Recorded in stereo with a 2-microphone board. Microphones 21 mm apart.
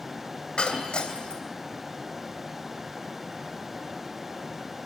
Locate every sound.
0.6 s breaking glass: 55° left (ahead or behind), 2.5 m